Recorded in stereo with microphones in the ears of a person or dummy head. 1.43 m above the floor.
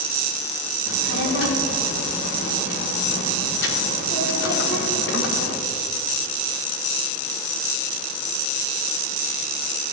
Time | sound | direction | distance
0.9 | a child speaking | 70° left (ahead or behind) | 1.9 m